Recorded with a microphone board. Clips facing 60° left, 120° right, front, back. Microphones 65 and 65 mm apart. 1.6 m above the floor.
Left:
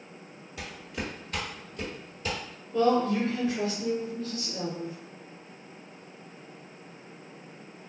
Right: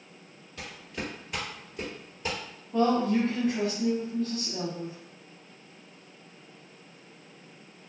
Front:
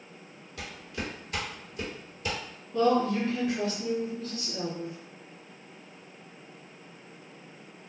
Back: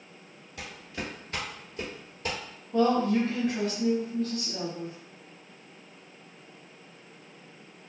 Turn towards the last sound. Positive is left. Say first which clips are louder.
# even, back 1 dB
turn(degrees=-155)